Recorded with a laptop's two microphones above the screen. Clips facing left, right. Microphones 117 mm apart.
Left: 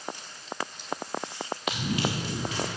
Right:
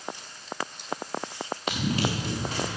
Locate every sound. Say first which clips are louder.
1.7 s running footsteps: right 2 dB; 35° right (ahead or behind), 6.5 m